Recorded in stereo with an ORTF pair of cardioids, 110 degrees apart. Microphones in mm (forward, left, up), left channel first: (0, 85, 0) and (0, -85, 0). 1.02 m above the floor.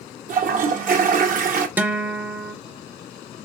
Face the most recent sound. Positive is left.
turn(degrees=-10)